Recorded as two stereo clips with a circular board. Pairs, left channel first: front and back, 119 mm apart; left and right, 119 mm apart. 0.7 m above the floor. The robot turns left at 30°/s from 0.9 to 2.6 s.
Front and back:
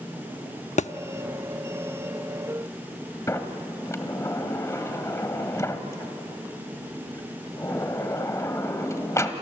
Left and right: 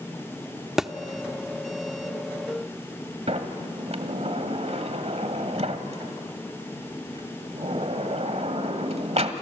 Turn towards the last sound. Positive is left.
turn(degrees=-65)